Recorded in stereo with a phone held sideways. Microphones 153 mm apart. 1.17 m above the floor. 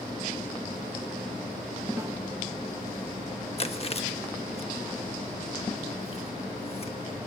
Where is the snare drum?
20° right (ahead or behind), 1.7 m.